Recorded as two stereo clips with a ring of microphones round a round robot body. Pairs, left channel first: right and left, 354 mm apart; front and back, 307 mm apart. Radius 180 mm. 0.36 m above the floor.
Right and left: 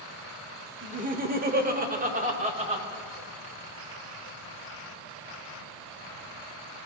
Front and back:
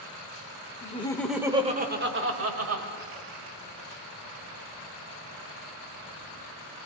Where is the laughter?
40° left, 1.2 m; by 2.9 s 160° left, 2 m.